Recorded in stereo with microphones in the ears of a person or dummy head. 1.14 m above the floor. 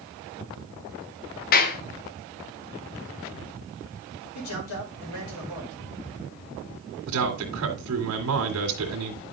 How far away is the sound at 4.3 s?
About 5 m.